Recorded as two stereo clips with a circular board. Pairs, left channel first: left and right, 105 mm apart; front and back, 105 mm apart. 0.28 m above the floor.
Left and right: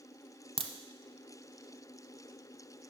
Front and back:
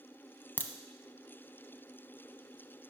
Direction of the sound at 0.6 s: 70° right.